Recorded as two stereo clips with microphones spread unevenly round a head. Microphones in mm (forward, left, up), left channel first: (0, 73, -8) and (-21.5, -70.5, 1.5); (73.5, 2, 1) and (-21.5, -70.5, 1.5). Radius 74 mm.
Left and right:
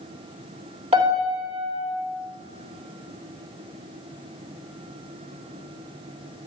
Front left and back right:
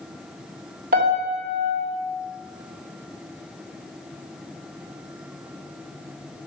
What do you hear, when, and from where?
0.9 s a piano: 150° right, 3 m